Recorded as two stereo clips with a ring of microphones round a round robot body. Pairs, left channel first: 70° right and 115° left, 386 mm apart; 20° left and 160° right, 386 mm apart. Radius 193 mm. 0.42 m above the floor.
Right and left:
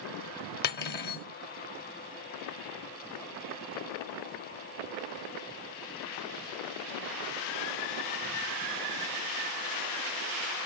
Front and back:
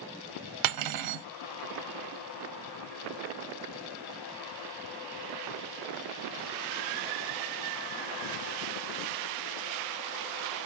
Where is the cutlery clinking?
130° right, 0.6 m.